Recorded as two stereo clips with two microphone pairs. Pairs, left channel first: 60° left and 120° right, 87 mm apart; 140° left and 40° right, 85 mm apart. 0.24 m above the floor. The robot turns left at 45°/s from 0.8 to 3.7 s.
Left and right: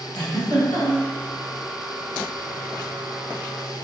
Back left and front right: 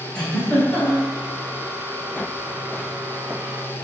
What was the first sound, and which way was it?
A giggle, 60° left.